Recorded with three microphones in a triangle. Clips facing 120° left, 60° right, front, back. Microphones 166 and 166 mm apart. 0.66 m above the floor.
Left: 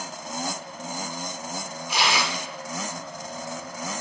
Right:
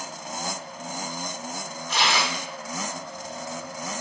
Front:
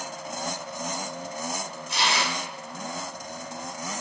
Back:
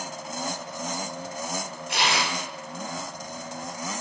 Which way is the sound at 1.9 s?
160° right.